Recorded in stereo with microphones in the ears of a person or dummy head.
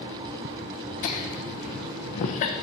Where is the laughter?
45° left (ahead or behind), 1.0 m.